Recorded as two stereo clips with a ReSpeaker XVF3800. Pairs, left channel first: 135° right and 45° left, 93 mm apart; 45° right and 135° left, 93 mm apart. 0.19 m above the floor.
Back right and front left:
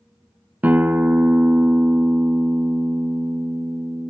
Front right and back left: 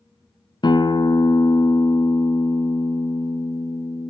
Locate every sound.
0.6 s a guitar: 25° right, 1.0 m